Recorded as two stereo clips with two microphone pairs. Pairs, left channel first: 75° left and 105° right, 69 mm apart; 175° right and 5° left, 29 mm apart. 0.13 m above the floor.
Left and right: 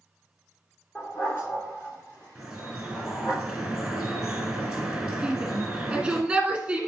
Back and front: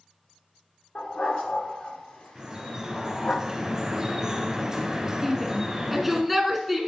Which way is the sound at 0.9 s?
130° left.